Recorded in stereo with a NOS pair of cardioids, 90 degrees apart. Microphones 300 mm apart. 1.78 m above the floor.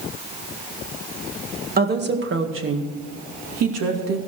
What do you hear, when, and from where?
1.8 s a woman speaking: 35° right, 1.6 m; by 4.2 s 60° right, 2.5 m